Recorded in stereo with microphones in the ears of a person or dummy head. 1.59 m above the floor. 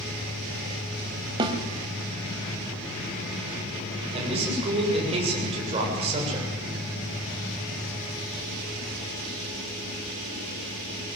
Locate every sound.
1.4 s a snare drum: 20° right (ahead or behind), 1.5 m
4.1 s a man speaking: 30° right (ahead or behind), 7.5 m